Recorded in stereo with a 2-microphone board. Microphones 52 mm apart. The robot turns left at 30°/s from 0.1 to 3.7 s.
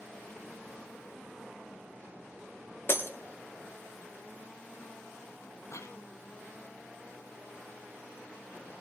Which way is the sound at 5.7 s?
65° left (ahead or behind).